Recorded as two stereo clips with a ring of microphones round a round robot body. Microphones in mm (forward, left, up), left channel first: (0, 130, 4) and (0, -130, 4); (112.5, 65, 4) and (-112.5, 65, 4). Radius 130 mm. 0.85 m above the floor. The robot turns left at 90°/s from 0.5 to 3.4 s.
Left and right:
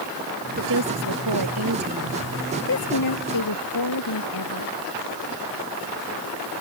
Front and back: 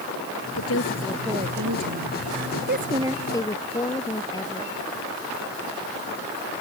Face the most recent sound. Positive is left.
turn(degrees=75)